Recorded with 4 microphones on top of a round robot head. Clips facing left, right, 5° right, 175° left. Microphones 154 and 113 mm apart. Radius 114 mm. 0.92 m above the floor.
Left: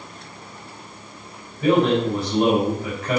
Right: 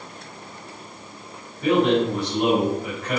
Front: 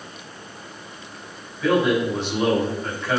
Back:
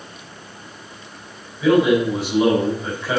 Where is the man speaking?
90° left, 5.5 m.